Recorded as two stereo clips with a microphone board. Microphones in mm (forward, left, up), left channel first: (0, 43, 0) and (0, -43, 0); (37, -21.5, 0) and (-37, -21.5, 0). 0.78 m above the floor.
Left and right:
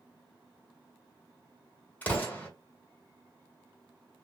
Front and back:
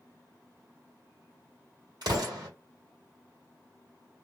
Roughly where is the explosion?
Behind.